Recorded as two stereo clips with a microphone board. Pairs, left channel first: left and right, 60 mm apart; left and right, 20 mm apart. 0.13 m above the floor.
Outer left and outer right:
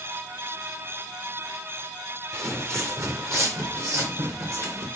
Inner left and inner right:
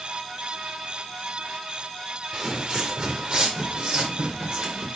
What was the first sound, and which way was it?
Footsteps, 45° right (ahead or behind).